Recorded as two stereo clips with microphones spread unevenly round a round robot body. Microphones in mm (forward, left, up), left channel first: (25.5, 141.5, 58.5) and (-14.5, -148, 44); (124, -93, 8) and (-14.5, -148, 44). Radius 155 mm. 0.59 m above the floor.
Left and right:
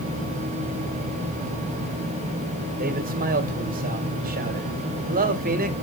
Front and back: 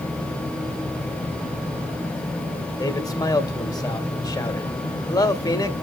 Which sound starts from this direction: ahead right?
A man speaking, at 2.8 s.